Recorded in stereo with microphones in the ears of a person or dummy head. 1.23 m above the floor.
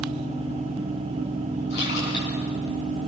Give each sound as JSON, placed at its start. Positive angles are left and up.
{"t": 1.7, "sound": "a splash", "side_deg": 70, "distance_m": 8.0}